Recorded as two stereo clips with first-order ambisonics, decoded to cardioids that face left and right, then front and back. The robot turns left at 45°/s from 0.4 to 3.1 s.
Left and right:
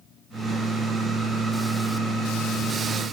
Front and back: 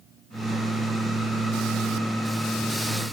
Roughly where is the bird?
I don't hear a bird.